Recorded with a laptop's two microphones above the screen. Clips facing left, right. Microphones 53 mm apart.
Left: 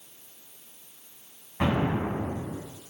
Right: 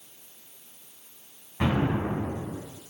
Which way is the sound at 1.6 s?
10° left (ahead or behind).